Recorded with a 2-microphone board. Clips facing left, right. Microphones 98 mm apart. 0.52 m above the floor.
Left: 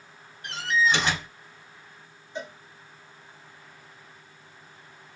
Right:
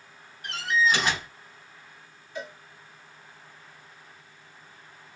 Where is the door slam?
25° left (ahead or behind), 3.5 m.